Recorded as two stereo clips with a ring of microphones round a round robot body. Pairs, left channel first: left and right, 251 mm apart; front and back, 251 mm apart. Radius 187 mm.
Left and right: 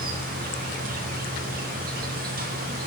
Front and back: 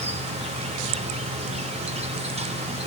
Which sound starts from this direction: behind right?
An insect, at 0.0 s.